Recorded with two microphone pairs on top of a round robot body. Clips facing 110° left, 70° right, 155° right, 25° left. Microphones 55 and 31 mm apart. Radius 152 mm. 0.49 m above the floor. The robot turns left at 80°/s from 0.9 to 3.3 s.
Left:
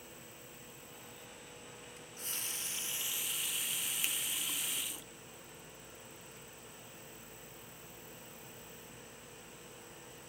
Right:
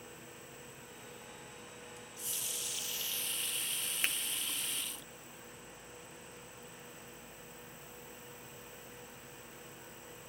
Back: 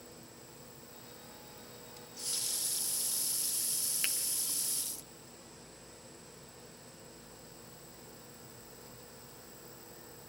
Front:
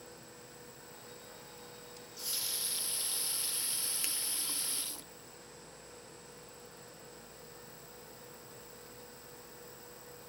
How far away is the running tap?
About 0.6 m.